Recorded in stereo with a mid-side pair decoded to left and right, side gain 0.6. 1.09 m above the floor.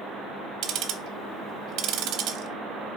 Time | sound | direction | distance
0.6 | ticking | 65° right | 0.7 m